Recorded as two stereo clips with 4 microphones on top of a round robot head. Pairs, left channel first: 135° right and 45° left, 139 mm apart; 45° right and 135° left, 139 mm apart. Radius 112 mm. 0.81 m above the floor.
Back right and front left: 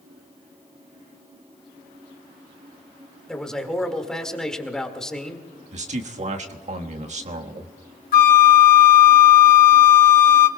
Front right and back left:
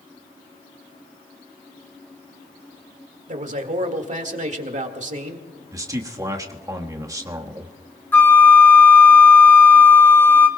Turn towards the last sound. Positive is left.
turn(degrees=-120)